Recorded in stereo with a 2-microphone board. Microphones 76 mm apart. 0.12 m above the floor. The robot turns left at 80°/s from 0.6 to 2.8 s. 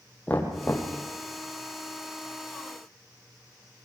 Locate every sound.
0.3 s knocking: 20° left (ahead or behind), 3 m; by 0.9 s 45° left (ahead or behind), 3 m